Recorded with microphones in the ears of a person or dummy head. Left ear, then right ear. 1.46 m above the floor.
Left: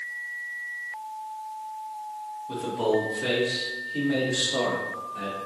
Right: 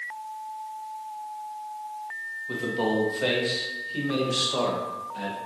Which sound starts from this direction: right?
A man speaking, at 2.5 s.